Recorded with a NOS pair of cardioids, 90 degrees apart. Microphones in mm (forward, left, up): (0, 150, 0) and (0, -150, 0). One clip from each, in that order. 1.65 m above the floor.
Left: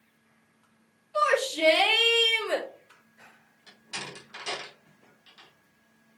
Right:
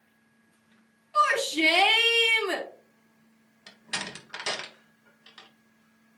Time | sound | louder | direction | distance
1.1 | a shout | right 1 dB | 40° right | 4.5 m
3.7 | a door slam | right 4 dB | 60° right | 1.7 m